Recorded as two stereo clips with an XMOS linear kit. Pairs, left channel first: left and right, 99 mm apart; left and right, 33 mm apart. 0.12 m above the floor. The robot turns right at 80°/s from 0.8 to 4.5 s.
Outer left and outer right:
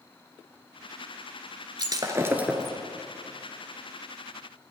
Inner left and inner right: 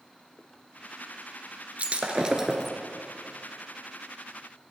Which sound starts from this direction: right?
Breaking glass, at 1.8 s.